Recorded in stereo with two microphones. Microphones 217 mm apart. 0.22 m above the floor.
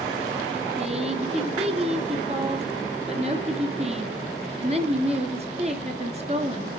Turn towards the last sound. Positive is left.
turn(degrees=-30)  # may be behind; listen again after turning